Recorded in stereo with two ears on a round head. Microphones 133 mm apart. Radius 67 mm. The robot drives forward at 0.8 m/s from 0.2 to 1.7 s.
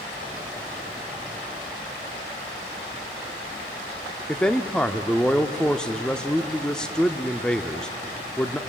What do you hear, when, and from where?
4.3 s a man speaking: 5° left (ahead or behind), 0.7 m